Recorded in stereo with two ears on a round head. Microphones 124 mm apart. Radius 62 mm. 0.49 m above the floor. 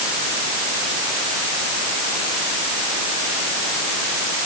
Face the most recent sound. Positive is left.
No sound to turn to.